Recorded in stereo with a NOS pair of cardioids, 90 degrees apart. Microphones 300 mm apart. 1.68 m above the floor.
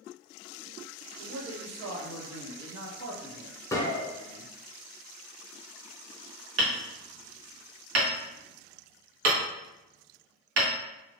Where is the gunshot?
10° left, 0.8 m.